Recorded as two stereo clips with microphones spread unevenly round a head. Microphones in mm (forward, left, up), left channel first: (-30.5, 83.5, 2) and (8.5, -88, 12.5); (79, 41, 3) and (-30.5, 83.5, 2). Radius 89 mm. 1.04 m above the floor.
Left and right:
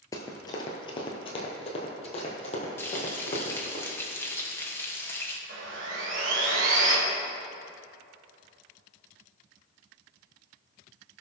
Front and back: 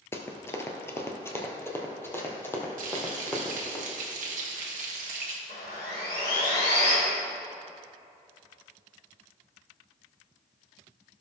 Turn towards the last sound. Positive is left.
turn(degrees=-55)